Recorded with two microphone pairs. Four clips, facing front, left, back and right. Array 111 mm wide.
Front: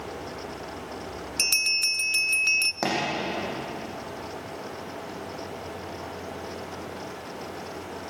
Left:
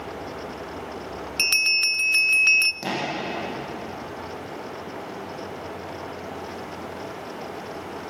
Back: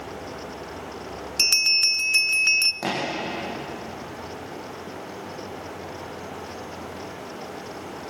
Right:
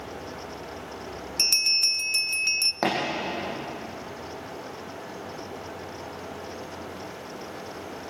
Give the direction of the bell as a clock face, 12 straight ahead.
9 o'clock.